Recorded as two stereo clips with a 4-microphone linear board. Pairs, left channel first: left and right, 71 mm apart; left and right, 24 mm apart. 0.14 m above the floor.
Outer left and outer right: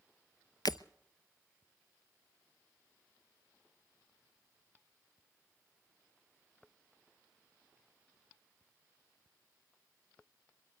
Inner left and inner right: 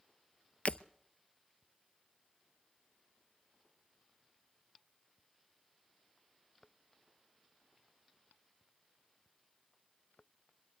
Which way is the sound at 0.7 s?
75° left (ahead or behind).